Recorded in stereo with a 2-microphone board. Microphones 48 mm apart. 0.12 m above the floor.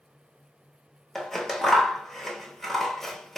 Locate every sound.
1.1 s scissors: 5° left (ahead or behind), 0.7 m